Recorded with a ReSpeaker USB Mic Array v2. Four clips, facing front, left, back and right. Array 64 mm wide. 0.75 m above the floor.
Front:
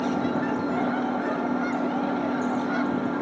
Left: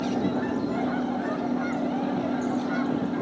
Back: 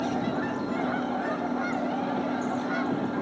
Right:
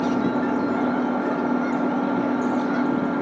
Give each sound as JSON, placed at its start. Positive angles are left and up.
{"t": 0.0, "sound": "an engine running", "azimuth_deg": -70}